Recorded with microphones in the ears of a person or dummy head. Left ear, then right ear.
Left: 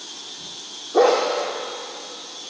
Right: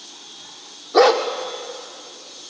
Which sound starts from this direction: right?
A dog barking, at 0.9 s.